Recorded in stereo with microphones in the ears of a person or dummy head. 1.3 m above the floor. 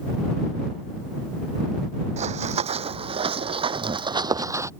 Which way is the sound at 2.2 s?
40° right (ahead or behind).